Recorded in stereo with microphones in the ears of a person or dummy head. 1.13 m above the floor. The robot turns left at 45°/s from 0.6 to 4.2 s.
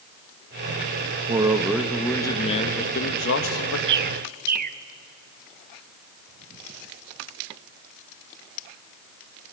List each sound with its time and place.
1.3 s a man speaking: 150° right, 1.5 m; by 3.8 s 100° left, 1.5 m
3.9 s a bird: 70° right (ahead or behind), 0.6 m; by 4.8 s 55° right (ahead or behind), 0.6 m